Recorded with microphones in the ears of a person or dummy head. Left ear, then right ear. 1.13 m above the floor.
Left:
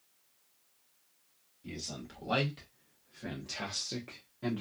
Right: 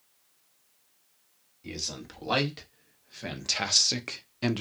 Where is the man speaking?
25° right (ahead or behind), 1.8 m; by 4.6 s 75° right (ahead or behind), 0.6 m.